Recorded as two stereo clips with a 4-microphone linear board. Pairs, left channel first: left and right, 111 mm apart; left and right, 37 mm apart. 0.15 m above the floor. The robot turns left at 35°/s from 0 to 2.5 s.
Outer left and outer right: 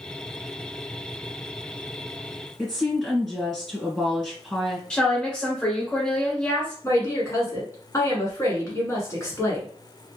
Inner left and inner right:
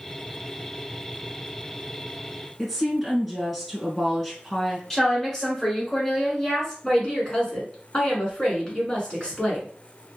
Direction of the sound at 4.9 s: 5° left (ahead or behind).